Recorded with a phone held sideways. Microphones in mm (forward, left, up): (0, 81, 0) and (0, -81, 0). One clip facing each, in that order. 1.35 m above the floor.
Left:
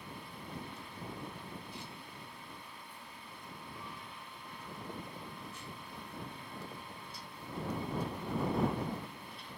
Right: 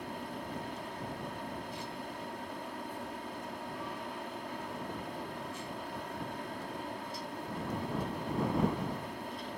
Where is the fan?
75° right (ahead or behind).